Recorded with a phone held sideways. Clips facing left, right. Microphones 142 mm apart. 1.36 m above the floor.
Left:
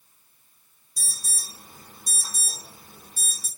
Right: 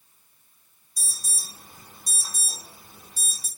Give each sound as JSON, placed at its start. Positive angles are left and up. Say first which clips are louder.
{"t": 1.0, "sound": "an alarm", "louder": "left 1 dB", "side_deg": 45, "distance_m": 1.4}